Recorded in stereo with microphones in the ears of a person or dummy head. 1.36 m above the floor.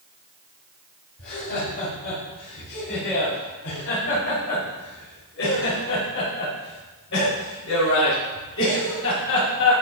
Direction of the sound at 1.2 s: 60° left (ahead or behind).